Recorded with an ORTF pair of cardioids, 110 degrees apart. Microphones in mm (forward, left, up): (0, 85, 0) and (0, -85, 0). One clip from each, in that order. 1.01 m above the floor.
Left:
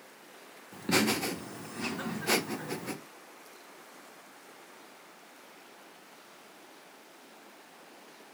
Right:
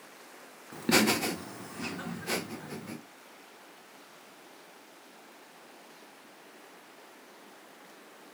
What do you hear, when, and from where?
0.7 s laughter: 25° right, 1.4 m; by 3.0 s 50° left, 1.4 m